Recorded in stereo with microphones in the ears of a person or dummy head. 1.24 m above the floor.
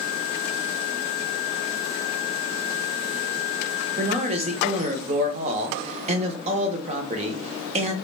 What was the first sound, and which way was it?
A man speaking, 35° right (ahead or behind).